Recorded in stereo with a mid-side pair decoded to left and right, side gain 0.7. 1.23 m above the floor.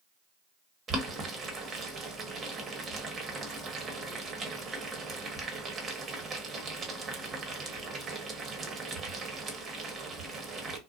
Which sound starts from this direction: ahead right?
Boiling, at 0.9 s.